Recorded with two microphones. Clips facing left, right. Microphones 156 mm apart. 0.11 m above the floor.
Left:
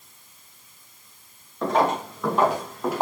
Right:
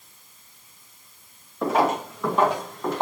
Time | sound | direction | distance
1.6 | footsteps | 5° right (ahead or behind) | 4.5 m